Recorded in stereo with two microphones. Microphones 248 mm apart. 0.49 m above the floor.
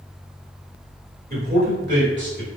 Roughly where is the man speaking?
Right.